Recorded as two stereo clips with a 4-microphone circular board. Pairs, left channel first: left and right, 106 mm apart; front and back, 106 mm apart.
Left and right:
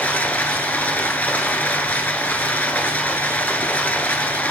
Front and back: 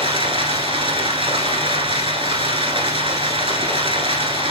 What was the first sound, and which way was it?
Running water, 160° left.